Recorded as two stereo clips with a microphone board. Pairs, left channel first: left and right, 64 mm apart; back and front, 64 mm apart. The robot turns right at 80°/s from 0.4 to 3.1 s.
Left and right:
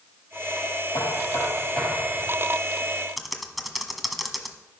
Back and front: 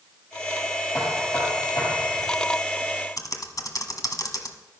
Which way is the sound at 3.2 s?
Straight behind.